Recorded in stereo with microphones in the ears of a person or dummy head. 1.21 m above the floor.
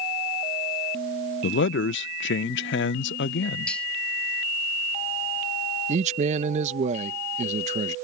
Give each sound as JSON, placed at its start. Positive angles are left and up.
{"t": 1.4, "sound": "a man speaking", "side_deg": 55}
{"t": 3.7, "sound": "cutlery clinking", "side_deg": 0}
{"t": 5.9, "sound": "a man speaking", "side_deg": -30}